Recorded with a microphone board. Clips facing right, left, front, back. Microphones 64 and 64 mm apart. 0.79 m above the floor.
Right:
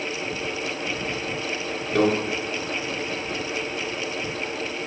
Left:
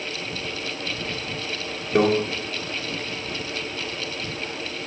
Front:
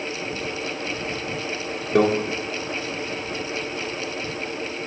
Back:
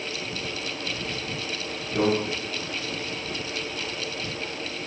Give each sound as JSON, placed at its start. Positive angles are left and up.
{"t": 1.9, "sound": "a microwave", "azimuth_deg": 20, "distance_m": 1.6}